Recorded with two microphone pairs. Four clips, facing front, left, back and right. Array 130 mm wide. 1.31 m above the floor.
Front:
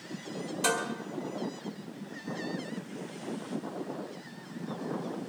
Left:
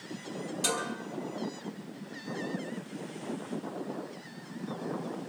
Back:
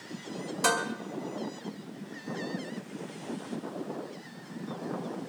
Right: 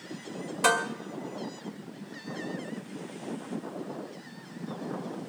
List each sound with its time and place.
0.6 s dishes clattering: 120° right, 1.9 m